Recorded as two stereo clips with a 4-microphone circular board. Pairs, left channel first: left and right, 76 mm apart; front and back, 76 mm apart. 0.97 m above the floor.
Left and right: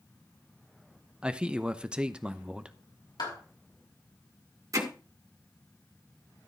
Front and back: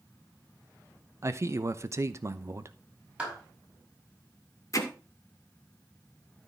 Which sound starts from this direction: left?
A clap, at 3.2 s.